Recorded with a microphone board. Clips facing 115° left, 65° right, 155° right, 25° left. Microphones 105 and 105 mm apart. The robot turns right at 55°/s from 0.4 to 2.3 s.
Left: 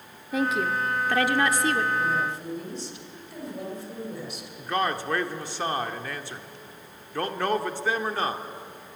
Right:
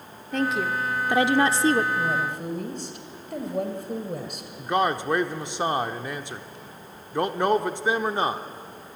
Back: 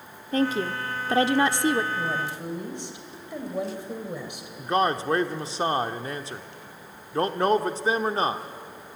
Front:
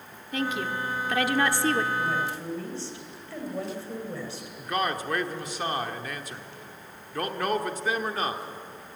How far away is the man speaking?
About 1.0 m.